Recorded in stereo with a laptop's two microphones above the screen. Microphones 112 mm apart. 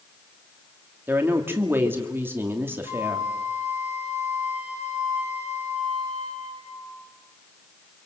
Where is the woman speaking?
20° right (ahead or behind), 2 m.